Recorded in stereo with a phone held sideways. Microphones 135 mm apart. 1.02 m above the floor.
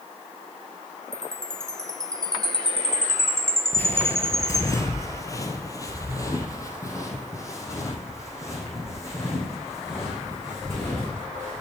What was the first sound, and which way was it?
A chime, 5° left (ahead or behind).